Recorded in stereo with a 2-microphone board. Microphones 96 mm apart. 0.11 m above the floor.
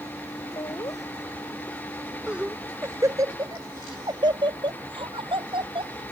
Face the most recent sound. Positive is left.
turn(degrees=-60)  # may be behind; listen again after turning